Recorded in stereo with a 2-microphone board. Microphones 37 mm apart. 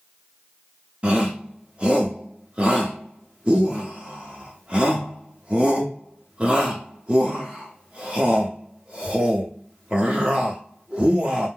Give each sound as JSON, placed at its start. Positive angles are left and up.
{"t": 1.0, "sound": "a shout", "side_deg": -30, "distance_m": 0.8}